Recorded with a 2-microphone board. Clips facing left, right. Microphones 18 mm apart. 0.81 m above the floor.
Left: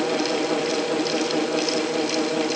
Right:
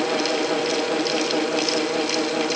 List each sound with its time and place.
Only background noise.